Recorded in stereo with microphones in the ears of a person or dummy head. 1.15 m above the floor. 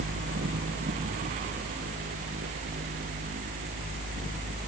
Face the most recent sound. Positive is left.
No sound to turn to.